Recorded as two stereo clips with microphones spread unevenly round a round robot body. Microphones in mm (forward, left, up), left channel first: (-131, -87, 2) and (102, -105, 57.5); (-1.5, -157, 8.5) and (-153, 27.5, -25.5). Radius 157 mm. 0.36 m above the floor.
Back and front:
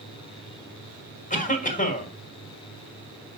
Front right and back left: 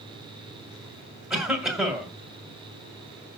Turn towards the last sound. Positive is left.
turn(degrees=-150)